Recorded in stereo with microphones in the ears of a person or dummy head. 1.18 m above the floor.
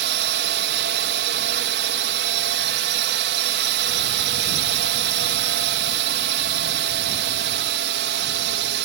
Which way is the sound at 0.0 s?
55° right (ahead or behind).